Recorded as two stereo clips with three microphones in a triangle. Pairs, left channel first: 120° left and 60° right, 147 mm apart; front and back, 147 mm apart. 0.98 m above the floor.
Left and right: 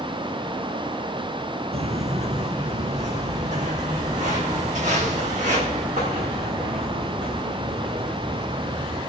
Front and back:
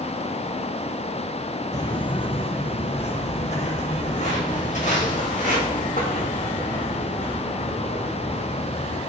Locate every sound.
1.7 s footsteps: 50° right, 1.3 m; by 9.0 s 25° right, 6.5 m